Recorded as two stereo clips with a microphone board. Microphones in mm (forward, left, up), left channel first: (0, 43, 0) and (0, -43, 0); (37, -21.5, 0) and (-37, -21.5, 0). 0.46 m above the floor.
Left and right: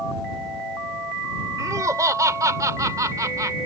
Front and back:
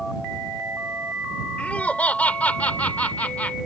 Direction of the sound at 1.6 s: 65° right.